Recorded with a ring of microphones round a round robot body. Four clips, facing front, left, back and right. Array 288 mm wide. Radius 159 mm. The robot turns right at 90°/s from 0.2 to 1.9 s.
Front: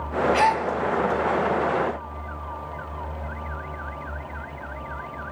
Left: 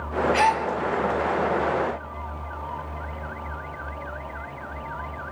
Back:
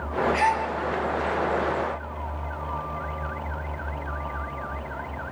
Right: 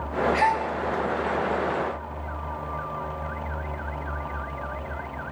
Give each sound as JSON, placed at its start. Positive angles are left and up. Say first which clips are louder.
{"t": 0.3, "sound": "a gasp", "louder": "left 2 dB, front 3 dB", "azimuth_deg": 55, "distance_m": 2.0}